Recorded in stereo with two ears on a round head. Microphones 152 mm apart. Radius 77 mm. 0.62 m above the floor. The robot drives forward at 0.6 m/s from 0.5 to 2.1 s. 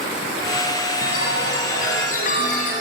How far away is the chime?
About 4 m.